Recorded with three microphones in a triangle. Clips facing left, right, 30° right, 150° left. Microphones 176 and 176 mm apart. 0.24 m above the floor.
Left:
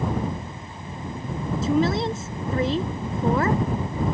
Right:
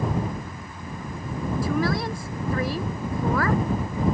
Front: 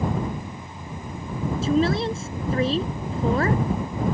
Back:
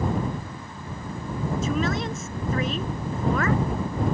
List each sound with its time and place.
1.6 s a woman speaking: 25° left